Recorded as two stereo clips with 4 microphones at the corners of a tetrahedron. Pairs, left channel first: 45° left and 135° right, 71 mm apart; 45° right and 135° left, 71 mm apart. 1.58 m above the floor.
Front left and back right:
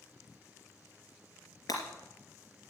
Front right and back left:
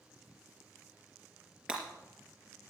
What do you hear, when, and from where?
1.7 s breaking glass: 60° left, 3.5 m